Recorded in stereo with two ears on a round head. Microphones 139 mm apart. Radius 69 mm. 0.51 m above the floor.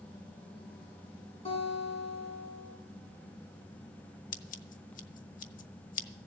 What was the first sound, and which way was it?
A guitar, 40° left (ahead or behind).